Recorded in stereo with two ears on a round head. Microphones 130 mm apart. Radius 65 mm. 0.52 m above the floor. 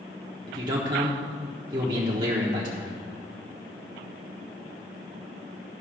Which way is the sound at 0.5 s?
30° right (ahead or behind).